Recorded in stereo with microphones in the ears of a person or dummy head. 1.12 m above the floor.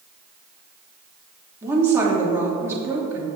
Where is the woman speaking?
15° right (ahead or behind), 2.5 m.